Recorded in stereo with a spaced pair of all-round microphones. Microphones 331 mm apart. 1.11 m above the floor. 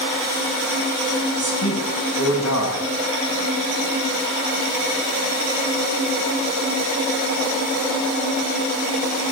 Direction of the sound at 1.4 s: 50° left (ahead or behind).